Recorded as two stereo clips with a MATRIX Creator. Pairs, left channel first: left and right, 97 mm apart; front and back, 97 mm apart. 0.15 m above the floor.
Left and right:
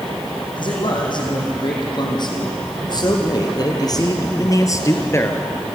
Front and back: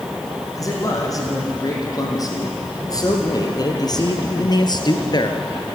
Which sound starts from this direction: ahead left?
A man speaking, at 0.6 s.